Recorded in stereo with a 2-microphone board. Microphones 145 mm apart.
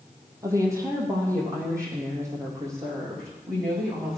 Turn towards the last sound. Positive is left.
turn(degrees=-20)  # may be behind; listen again after turning